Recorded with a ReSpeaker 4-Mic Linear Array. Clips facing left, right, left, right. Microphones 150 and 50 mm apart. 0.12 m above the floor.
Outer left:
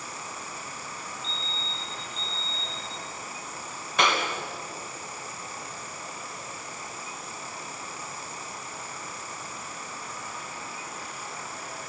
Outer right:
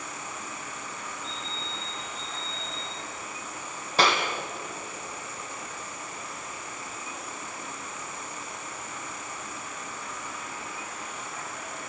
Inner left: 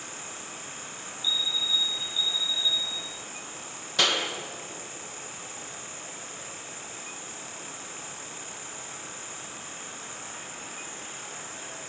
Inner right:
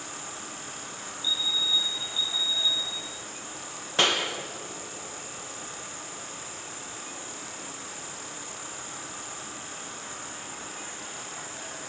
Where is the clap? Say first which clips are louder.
Outer right 1 dB, inner right 1 dB; 30° right (ahead or behind), 3.5 m.